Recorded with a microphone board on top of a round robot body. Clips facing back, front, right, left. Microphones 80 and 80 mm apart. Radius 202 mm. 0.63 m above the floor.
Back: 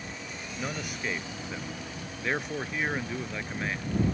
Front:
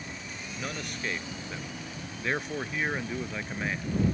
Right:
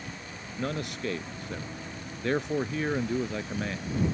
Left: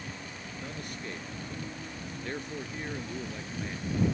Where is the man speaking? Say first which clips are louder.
Back 1 dB, right 10 dB; 95° right; by 4.0 s 85° right.